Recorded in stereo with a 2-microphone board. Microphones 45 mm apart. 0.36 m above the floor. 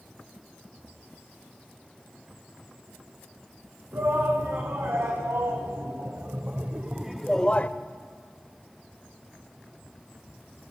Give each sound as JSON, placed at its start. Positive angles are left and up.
{"t": 3.9, "sound": "a shout", "side_deg": -75, "distance_m": 4.0}